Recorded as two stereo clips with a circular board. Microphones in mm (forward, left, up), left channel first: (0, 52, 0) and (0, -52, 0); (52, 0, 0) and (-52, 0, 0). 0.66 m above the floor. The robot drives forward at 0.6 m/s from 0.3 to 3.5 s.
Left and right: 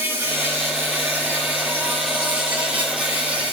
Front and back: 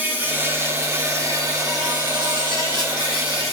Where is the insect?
130° right, 1.9 m; by 3.5 s 165° right, 3 m.